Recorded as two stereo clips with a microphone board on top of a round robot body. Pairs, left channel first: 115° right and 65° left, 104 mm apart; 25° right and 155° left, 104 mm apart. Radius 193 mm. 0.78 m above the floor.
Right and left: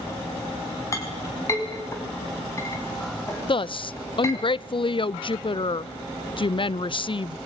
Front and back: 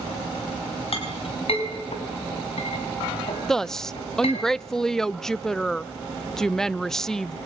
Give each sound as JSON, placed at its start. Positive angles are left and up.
{"t": 0.9, "sound": "a clink", "azimuth_deg": -50, "distance_m": 5.0}
{"t": 3.5, "sound": "a woman speaking", "azimuth_deg": -105, "distance_m": 0.7}